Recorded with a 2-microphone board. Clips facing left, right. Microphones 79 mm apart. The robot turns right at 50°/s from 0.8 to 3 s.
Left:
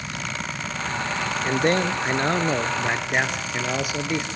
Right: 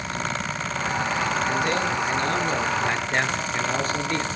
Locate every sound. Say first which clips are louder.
1.4 s a man speaking: left 2 dB; 85° left, 1.5 m; by 4.3 s 165° left, 1.5 m